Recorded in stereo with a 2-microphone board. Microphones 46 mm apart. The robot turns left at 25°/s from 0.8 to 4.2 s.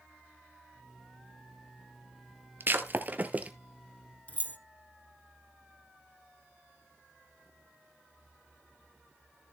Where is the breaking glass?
50° right (ahead or behind), 1.1 m; by 3.5 s 30° right (ahead or behind), 1.1 m.